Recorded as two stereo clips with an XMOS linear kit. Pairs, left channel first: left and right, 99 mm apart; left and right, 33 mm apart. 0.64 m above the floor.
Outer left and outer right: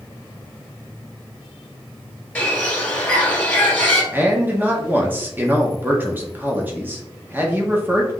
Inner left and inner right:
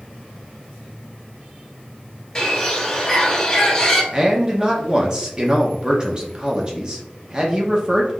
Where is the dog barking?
I don't hear a dog barking.